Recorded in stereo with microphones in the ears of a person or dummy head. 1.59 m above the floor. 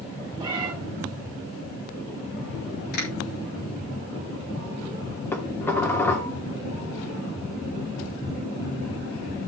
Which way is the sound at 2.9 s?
55° left (ahead or behind).